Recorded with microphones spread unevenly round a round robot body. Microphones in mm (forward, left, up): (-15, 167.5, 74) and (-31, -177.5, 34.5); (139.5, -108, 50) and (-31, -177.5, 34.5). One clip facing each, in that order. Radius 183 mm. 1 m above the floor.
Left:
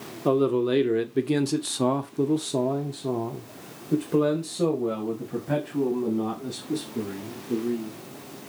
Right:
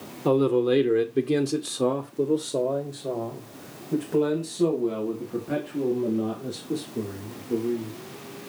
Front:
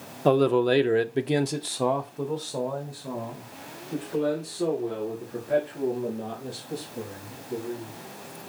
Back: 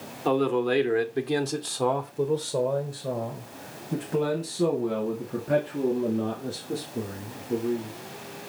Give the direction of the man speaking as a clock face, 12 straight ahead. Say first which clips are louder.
Right 1 dB, front 3 dB; 1 o'clock.